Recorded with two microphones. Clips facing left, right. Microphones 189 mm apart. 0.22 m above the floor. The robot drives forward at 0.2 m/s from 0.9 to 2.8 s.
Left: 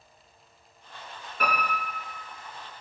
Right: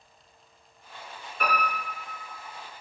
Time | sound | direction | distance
1.4 | a piano | 45° left (ahead or behind) | 1.2 m